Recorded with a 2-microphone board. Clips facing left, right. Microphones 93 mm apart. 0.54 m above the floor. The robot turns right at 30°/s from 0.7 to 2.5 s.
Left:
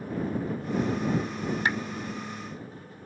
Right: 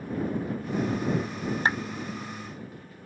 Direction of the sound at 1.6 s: 35° right (ahead or behind).